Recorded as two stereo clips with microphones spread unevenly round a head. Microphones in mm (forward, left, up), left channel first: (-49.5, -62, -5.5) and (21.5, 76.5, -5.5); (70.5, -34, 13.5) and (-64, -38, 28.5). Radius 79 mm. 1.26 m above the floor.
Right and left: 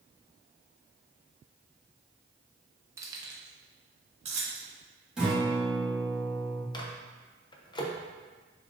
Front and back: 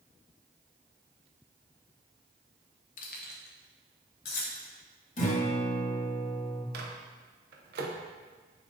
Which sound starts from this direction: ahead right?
A guitar, at 5.2 s.